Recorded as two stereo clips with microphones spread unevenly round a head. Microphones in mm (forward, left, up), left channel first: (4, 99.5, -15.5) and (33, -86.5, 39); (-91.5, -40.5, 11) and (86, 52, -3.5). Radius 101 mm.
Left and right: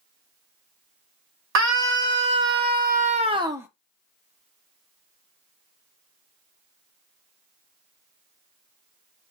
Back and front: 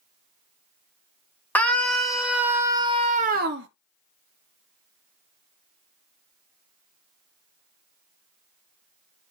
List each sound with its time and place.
1.6 s a scream: 70° right, 1.5 m; by 3.7 s 5° right, 0.7 m